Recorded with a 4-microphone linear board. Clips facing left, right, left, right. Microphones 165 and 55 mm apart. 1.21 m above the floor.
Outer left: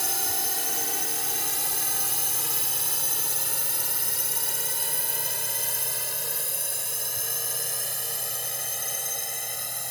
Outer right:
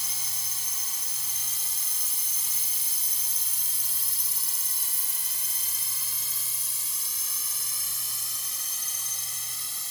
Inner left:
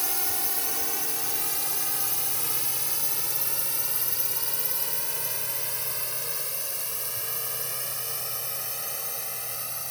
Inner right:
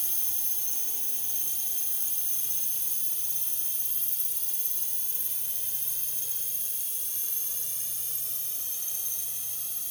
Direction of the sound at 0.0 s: 75° left (ahead or behind).